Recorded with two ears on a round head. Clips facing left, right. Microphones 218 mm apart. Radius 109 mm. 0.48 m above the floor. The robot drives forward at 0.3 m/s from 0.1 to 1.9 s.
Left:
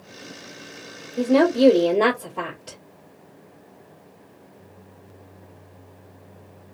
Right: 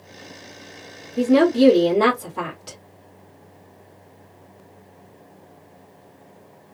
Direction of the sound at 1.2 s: 30° right (ahead or behind).